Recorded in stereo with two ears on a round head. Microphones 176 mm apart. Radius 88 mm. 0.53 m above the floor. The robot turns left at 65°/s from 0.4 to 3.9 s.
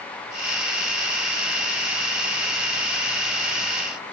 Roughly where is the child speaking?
I don't hear a child speaking.